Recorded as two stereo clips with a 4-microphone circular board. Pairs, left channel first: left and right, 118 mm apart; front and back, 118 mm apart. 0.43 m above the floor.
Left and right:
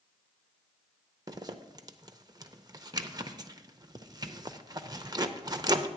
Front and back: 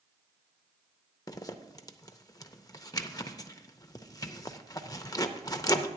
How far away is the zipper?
About 0.5 m.